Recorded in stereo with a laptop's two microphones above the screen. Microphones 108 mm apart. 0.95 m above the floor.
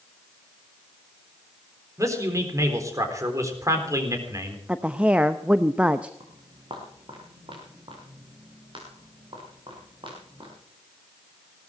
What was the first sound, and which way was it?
A man speaking, 30° right (ahead or behind).